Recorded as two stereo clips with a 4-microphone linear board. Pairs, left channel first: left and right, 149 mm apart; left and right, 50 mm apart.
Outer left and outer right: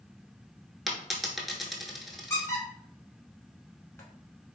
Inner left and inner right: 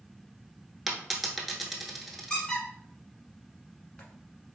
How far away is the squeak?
About 0.9 m.